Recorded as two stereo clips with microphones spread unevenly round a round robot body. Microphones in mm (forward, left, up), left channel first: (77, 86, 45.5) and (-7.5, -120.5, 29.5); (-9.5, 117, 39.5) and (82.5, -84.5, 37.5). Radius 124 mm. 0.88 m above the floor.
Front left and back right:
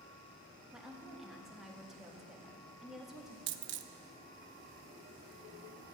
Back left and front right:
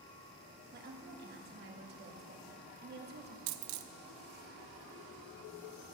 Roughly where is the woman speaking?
Ahead right.